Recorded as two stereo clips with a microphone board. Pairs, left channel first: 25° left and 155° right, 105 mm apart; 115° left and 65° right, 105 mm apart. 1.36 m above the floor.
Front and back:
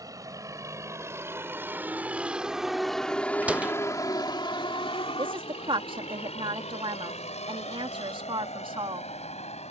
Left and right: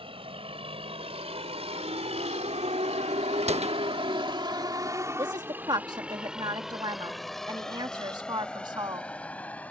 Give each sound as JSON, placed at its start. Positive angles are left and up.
{"t": 0.0, "sound": "a vehicle", "azimuth_deg": -100}
{"t": 3.4, "sound": "a door slam", "azimuth_deg": -80}
{"t": 5.2, "sound": "a woman speaking", "azimuth_deg": -115}